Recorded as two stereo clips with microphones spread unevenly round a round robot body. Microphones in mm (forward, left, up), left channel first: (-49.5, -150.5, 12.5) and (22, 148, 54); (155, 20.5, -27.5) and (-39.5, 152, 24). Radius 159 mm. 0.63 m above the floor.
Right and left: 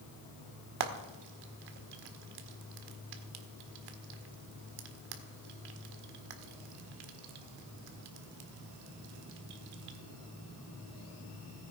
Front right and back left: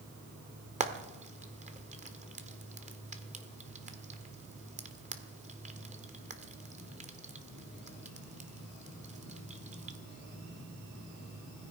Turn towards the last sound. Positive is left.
turn(degrees=80)